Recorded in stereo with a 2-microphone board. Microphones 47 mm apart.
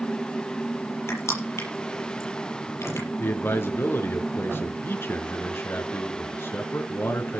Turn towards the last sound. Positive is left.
turn(degrees=60)  # may be behind; listen again after turning